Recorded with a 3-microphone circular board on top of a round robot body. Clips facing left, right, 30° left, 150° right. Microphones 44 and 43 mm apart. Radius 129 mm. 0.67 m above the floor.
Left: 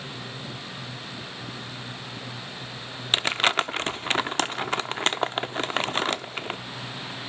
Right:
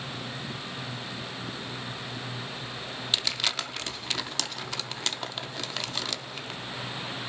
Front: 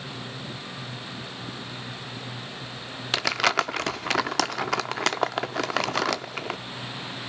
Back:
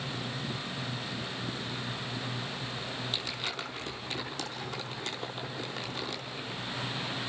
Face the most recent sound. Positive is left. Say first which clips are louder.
# left 8 dB, front 18 dB
turn(degrees=35)